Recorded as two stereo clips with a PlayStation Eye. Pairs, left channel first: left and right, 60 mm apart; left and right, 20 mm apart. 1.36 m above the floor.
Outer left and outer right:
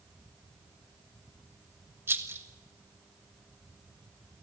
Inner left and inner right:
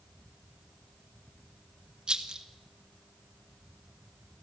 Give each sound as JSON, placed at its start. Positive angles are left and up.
{"t": 2.1, "sound": "a rattle", "side_deg": -40, "distance_m": 1.7}